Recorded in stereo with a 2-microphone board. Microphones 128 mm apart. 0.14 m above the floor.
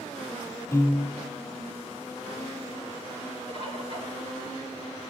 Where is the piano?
25° left (ahead or behind), 4 m.